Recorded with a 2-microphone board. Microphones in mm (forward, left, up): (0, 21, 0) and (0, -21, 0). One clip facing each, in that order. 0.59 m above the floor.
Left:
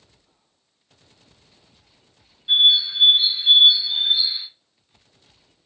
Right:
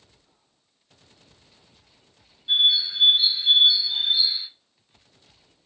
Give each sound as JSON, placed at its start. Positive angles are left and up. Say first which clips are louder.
{"t": 2.5, "sound": "a bird", "louder": "left 4 dB", "side_deg": 15, "distance_m": 0.8}